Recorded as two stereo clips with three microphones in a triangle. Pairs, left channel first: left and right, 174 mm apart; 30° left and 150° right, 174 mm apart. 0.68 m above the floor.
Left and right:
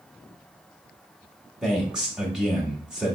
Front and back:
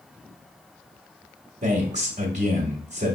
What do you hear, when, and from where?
1.6 s a man speaking: 175° right, 1.1 m